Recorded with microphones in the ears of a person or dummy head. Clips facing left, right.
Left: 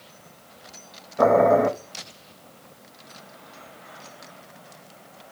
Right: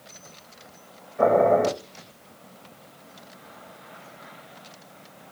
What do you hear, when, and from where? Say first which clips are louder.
1.2 s boiling: left 1 dB; 50° left (ahead or behind), 0.8 m